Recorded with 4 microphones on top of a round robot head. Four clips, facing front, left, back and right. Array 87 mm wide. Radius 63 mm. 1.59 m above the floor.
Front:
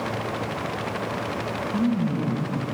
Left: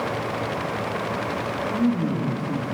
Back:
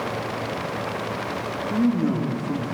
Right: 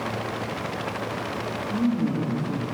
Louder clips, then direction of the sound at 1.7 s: Left 1 dB, back 3 dB; 175° left.